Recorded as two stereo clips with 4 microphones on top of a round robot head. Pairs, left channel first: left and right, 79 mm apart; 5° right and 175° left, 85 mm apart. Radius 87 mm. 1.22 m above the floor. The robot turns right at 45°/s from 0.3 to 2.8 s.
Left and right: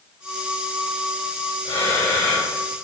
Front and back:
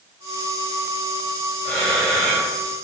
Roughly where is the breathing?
Left.